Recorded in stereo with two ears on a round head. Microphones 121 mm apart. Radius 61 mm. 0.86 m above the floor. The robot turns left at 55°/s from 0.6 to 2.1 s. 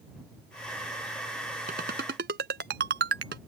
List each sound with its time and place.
1.7 s a ringtone: 65° right (ahead or behind); by 3.4 s 90° right